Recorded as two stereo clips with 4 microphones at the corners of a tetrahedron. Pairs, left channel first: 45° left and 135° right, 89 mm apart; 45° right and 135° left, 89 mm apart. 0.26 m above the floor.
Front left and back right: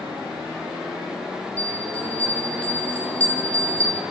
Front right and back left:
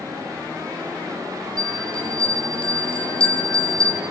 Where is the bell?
30° right, 2 m.